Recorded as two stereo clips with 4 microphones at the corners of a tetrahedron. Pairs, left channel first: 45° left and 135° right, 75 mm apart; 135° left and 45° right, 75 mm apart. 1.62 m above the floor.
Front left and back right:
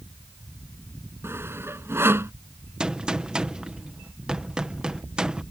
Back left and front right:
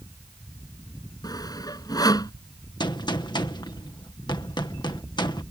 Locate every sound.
1.2 s sawing: 165° left
2.8 s a gunshot: 145° left